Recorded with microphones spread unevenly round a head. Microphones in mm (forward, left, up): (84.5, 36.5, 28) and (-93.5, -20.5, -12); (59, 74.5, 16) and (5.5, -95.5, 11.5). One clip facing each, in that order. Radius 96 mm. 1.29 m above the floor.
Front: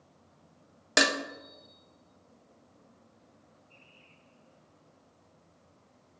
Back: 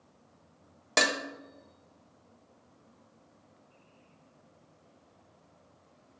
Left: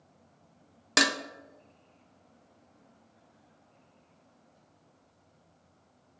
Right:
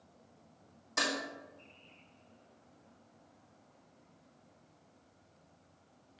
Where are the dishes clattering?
90° left, 0.8 m.